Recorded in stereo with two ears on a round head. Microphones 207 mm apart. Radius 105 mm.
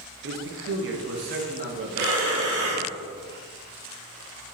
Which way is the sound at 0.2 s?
55° right (ahead or behind).